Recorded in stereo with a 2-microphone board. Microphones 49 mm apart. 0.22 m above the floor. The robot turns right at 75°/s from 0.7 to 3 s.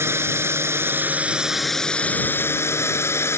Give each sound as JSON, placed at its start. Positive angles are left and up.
{"t": 0.0, "sound": "a drone", "azimuth_deg": -75}